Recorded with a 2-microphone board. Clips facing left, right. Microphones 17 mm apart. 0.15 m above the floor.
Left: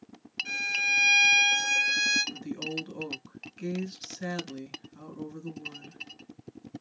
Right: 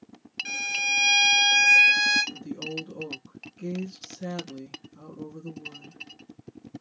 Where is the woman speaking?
40° left (ahead or behind), 1.6 m.